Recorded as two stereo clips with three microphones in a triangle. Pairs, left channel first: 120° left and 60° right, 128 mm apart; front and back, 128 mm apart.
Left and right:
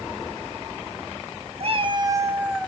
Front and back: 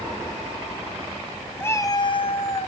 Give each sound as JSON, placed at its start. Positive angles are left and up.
{"t": 1.6, "sound": "a cat meowing", "azimuth_deg": -65, "distance_m": 0.9}